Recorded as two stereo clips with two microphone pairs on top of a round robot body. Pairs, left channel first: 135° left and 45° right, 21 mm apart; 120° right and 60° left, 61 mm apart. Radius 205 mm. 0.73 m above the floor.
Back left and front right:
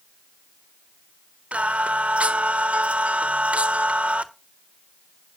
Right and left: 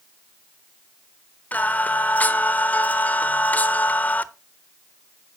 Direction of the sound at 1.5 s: 50° right.